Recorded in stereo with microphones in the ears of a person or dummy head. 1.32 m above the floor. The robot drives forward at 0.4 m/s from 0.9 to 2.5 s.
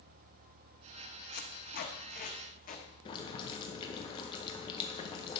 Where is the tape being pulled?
55° left (ahead or behind), 1.2 m; by 2.9 s 40° left (ahead or behind), 1.4 m.